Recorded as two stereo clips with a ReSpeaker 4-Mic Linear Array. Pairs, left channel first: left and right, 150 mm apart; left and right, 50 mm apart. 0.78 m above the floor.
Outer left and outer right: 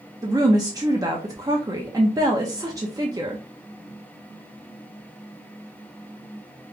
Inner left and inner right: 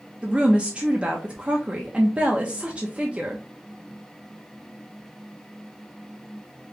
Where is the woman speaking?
25° right (ahead or behind), 0.8 m.